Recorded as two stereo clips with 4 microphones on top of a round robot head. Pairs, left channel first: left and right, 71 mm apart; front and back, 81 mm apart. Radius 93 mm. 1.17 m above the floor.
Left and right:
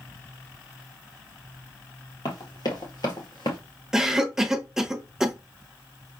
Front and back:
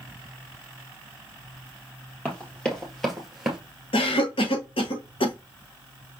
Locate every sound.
2.2 s running footsteps: 70° left, 1.7 m; by 3.6 s 100° left, 1.4 m
3.9 s a cough: 5° right, 1.2 m